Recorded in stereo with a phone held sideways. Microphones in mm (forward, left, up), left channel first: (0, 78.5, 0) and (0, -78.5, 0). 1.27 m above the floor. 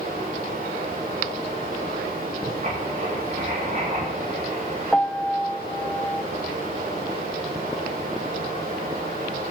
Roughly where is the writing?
Right.